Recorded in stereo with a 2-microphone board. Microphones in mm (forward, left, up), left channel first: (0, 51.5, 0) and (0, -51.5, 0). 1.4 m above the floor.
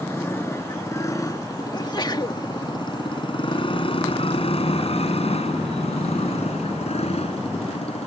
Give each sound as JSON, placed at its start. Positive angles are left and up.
{"t": 0.0, "sound": "a motorcycle", "side_deg": 25}
{"t": 1.7, "sound": "a sneeze", "side_deg": 45}